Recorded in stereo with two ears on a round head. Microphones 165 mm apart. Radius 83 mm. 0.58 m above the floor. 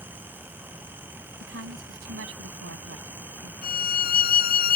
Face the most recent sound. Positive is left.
turn(degrees=50)  # may be behind; listen again after turning